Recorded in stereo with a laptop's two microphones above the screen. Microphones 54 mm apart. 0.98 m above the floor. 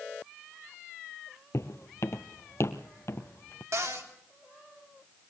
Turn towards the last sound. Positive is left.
turn(degrees=-65)  # may be behind; listen again after turning